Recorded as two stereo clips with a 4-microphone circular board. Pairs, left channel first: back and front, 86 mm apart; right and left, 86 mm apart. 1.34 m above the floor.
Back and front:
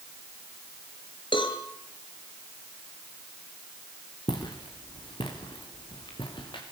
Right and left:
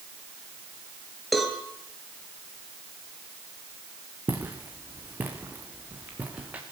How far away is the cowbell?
About 4.5 m.